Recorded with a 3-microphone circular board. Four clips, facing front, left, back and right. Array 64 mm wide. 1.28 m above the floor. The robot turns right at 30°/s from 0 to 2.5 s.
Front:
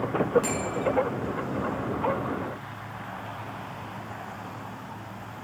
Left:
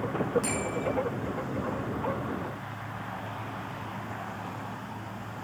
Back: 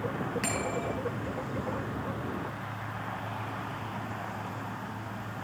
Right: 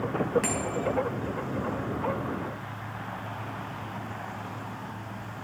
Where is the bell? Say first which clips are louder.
Right 1 dB, front 4 dB; 135° right, 4.5 m; by 0.9 s 120° right, 4.5 m.